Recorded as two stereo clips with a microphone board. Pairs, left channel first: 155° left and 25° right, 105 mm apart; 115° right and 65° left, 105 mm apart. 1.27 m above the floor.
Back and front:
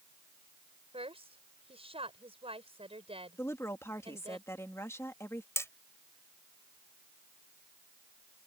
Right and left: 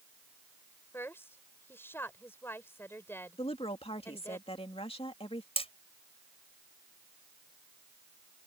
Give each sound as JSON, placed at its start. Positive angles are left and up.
{"t": 0.9, "sound": "a woman speaking", "azimuth_deg": -45}
{"t": 3.4, "sound": "a woman speaking", "azimuth_deg": -140}
{"t": 5.6, "sound": "hammering", "azimuth_deg": -135}